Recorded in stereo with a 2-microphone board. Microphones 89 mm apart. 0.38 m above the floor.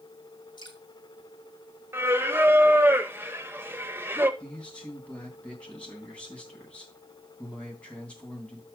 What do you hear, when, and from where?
0.6 s dripping: 50° left (ahead or behind), 2 m
1.9 s singing: 25° right (ahead or behind), 0.7 m
4.4 s a man speaking: 10° left (ahead or behind), 2.5 m